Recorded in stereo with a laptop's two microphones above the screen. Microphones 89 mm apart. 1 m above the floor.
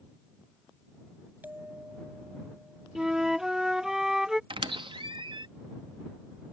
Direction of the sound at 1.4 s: 20° right (ahead or behind).